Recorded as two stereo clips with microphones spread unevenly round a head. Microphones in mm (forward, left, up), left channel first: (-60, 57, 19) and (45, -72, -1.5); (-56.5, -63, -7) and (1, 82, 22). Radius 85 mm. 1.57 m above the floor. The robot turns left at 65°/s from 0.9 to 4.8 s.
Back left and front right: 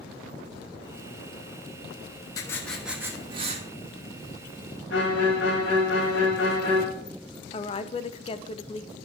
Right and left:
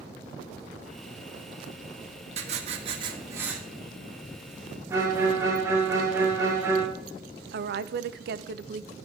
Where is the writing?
70° left, 1.2 m; by 3.6 s 10° right, 1.2 m.